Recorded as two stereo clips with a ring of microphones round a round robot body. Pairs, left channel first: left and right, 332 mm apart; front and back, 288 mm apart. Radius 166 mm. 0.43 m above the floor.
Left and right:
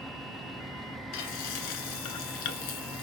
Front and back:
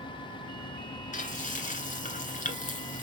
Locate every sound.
1.1 s frying: 65° left, 1.6 m